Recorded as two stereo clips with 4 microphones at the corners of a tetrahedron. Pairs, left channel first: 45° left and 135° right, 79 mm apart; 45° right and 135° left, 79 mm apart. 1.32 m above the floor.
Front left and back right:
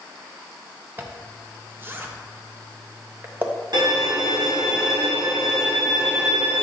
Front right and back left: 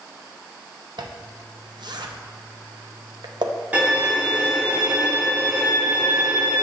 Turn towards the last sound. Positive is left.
turn(degrees=-155)